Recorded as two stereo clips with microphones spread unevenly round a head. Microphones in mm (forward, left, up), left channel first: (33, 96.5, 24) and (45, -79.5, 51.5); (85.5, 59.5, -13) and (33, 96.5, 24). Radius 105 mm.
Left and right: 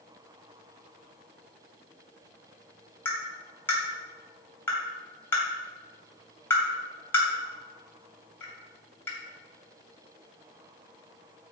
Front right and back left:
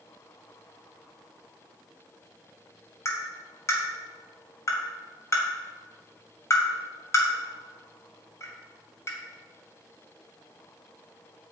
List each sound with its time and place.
3.0 s tapping: 15° left, 3 m